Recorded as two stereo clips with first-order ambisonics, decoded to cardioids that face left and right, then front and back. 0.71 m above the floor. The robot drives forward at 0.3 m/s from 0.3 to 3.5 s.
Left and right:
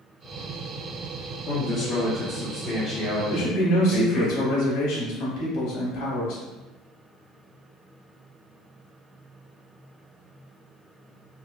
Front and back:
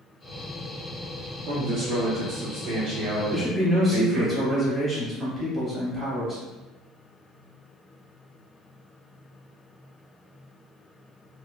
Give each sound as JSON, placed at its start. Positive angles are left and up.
{"t": 1.5, "sound": "a man speaking", "azimuth_deg": 150, "distance_m": 0.8}
{"t": 3.3, "sound": "a man speaking", "azimuth_deg": 105, "distance_m": 1.6}